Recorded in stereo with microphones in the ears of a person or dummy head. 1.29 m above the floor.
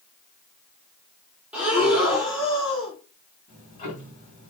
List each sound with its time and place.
1.5 s breathing: centre (ahead or behind), 0.9 m
3.5 s ticking: 45° left (ahead or behind), 1.4 m